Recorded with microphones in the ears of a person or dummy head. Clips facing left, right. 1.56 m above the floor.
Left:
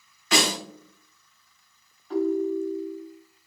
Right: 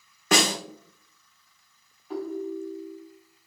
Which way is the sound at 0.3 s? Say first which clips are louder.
Right 1 dB; 40° right (ahead or behind).